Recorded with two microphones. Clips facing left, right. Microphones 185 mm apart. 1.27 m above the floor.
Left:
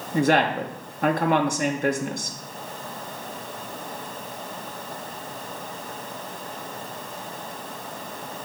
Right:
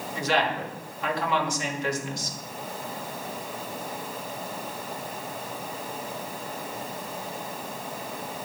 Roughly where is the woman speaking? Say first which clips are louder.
Left 6 dB; left.